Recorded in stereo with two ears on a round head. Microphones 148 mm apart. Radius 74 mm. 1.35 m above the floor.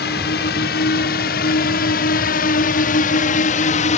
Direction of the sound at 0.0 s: 65° left (ahead or behind).